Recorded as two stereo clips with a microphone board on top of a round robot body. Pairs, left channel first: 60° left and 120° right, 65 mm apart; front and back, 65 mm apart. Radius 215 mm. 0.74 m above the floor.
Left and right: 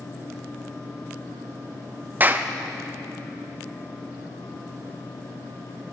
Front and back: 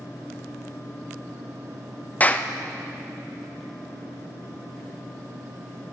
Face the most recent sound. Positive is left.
turn(degrees=-65)